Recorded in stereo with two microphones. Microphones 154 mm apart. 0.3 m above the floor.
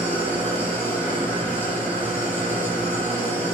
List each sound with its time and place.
0.0 s an engine running: 15° left (ahead or behind), 4.5 m